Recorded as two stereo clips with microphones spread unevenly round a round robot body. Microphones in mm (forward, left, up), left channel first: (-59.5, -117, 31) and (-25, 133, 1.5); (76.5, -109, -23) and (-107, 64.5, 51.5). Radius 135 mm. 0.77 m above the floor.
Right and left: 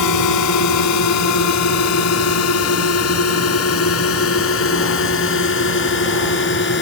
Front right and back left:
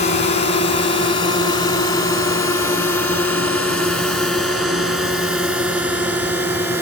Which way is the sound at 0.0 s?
105° right.